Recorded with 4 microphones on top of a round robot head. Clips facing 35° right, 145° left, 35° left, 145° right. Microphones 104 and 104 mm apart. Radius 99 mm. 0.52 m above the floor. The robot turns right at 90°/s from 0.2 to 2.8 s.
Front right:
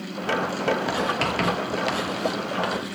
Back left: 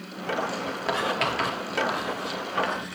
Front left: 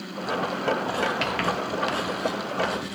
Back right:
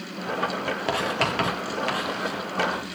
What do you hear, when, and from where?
0.9 s writing: 125° right, 4.5 m; by 3.0 s 50° left, 4.5 m